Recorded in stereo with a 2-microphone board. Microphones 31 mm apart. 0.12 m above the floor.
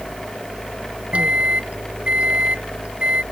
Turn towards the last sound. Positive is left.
turn(degrees=-45)  # may be behind; listen again after turning